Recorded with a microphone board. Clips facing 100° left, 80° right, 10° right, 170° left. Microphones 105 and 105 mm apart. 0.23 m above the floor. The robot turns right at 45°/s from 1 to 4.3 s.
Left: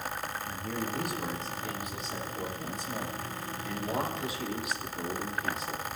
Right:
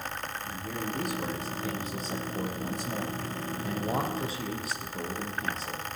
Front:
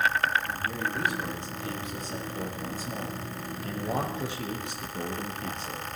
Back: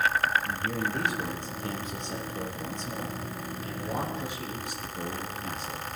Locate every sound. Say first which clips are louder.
0.5 s a man speaking: right 1 dB, back 1 dB; 175° right, 5.5 m; by 5.8 s 30° right, 5.5 m